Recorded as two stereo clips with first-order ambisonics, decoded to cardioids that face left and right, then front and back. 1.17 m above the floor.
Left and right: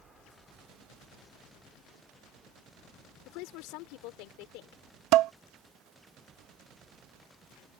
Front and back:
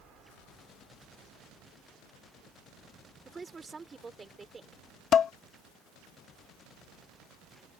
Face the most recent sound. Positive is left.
turn(degrees=-60)